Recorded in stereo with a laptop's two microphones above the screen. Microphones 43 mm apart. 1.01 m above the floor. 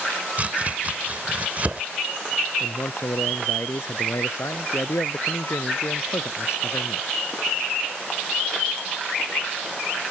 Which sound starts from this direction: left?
A man speaking, at 2.6 s.